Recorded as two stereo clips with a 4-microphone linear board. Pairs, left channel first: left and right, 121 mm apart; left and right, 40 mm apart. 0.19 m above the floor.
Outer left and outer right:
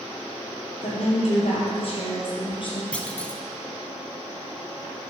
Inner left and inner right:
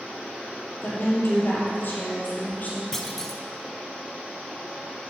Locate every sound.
0.8 s a woman speaking: 65° left (ahead or behind), 3.5 m; by 2.8 s 45° left (ahead or behind), 4 m
2.9 s a clunk: 10° left (ahead or behind), 0.9 m